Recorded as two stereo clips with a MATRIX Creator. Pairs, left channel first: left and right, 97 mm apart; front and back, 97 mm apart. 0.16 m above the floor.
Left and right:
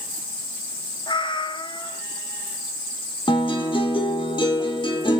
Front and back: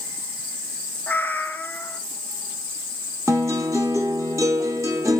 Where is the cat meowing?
70° left, 1.0 m.